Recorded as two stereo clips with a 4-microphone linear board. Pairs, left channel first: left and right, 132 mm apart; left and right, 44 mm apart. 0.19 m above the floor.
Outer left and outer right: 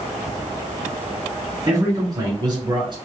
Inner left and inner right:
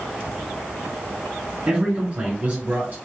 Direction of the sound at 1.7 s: 25° right (ahead or behind).